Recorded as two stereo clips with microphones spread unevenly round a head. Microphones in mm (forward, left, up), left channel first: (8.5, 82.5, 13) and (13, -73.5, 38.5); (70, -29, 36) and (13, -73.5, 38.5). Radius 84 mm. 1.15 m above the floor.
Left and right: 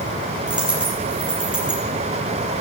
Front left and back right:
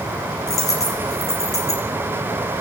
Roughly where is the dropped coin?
Ahead.